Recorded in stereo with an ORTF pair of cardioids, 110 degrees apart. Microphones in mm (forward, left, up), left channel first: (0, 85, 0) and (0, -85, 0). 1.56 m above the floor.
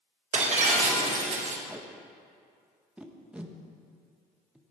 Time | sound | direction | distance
0.3 | breaking glass | 45° right | 3.5 m
1.7 | tape being pulled | 5° right | 1.4 m